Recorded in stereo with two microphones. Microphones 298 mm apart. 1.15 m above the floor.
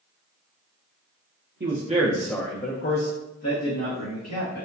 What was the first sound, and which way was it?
A man speaking, 35° right (ahead or behind).